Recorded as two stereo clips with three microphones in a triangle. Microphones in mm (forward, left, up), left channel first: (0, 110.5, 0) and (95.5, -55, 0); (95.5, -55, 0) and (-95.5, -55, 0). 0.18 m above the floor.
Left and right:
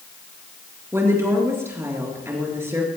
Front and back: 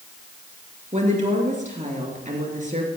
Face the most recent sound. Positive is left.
turn(degrees=-135)